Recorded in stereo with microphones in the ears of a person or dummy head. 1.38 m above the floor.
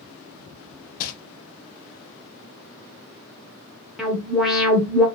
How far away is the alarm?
About 0.7 m.